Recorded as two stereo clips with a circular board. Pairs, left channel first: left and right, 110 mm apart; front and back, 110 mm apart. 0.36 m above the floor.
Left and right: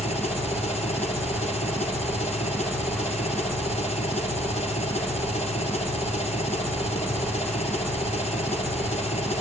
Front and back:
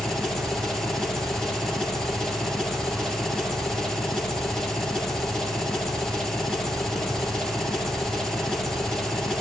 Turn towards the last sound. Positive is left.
turn(degrees=85)